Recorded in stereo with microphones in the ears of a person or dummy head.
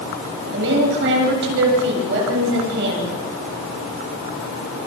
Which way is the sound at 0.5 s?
65° right (ahead or behind).